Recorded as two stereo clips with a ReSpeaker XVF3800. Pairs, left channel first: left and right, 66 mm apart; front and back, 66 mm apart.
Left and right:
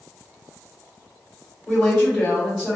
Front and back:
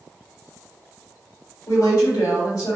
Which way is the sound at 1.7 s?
5° right.